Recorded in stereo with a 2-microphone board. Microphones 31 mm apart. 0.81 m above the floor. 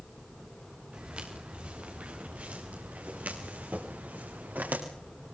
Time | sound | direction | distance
0.9 | footsteps | 40° right (ahead or behind) | 7 m